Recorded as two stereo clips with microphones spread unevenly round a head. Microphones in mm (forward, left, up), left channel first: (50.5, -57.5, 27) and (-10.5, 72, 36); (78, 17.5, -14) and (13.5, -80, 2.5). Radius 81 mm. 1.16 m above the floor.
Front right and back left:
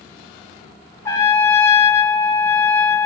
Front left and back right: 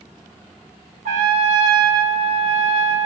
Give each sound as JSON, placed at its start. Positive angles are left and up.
{"t": 1.1, "sound": "a trumpet", "azimuth_deg": -130, "distance_m": 1.0}